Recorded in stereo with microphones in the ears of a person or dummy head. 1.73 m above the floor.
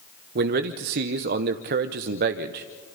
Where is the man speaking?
50° right (ahead or behind), 0.8 m.